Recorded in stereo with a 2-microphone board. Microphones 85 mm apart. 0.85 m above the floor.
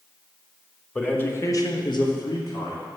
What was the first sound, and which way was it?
A man speaking, 15° left (ahead or behind).